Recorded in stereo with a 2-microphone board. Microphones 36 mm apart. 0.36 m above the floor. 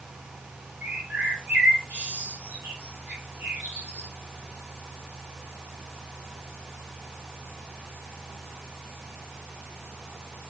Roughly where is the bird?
Right.